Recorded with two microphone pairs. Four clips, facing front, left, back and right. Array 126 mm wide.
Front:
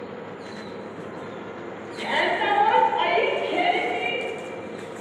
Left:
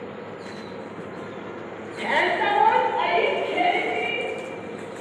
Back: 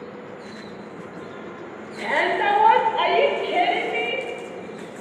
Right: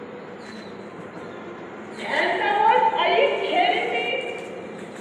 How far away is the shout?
About 1.1 m.